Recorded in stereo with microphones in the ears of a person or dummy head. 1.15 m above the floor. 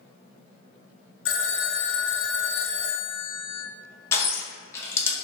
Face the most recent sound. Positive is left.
turn(degrees=20)  # may be behind; listen again after turning